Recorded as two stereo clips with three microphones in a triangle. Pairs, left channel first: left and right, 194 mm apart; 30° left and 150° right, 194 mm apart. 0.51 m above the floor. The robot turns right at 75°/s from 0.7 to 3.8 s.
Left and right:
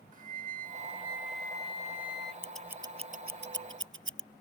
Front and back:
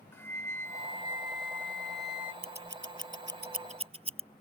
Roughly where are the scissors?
Behind.